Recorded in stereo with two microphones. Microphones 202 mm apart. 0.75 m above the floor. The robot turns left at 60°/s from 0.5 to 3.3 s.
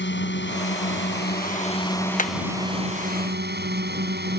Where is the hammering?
45° left (ahead or behind); by 2.3 s 40° left (ahead or behind).